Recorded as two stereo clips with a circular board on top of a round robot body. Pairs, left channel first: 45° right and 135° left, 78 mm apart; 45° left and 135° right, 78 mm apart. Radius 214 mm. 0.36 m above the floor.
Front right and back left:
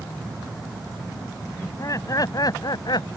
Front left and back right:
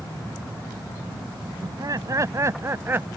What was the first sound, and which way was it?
Laughter, 95° right.